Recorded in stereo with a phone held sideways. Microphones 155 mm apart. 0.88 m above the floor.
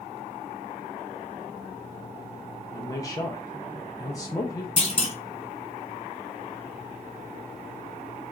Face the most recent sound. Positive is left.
turn(degrees=40)  # may be behind; listen again after turning